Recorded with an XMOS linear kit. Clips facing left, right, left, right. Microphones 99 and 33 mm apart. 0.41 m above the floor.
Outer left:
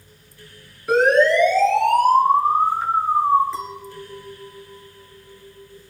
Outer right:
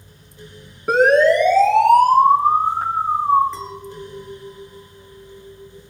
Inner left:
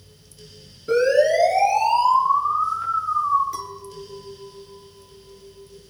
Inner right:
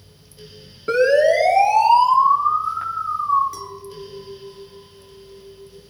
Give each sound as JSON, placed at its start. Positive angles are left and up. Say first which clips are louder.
{"t": 0.9, "sound": "a siren", "louder": "outer right 2 dB, inner right 2 dB", "side_deg": -55, "distance_m": 5.5}
{"t": 3.5, "sound": "a clink", "louder": "even, even", "side_deg": 0, "distance_m": 3.5}